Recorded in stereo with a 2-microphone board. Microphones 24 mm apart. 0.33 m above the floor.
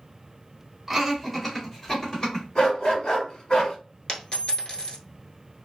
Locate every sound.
0.9 s laughter: 10° right (ahead or behind), 1.5 m; by 2.5 s 35° left (ahead or behind), 1.8 m
2.5 s a dog barking: 50° left (ahead or behind), 1.1 m
4.1 s a dropped coin: 50° left (ahead or behind), 0.9 m